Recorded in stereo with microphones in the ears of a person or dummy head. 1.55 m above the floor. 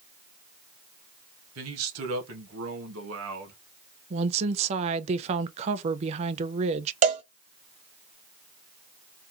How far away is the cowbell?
About 0.8 m.